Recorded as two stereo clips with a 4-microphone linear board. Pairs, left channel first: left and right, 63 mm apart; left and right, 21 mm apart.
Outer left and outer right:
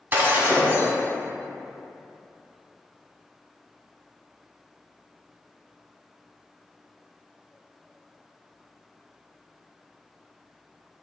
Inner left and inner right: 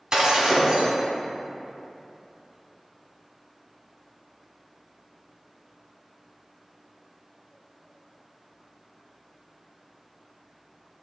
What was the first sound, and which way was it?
Breaking glass, 30° right (ahead or behind).